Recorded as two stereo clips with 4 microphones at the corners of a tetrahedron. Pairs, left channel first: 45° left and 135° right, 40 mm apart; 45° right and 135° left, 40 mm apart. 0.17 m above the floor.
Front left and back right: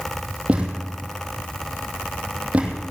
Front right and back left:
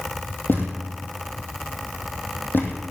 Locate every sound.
0.5 s a thud: 75° right, 2.5 m